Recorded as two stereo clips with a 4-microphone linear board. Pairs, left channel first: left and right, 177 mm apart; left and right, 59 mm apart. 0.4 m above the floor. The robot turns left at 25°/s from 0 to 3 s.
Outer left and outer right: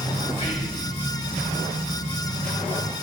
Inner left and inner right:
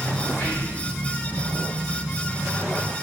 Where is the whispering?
35° left (ahead or behind), 2 m; by 0.8 s 45° left (ahead or behind), 2 m.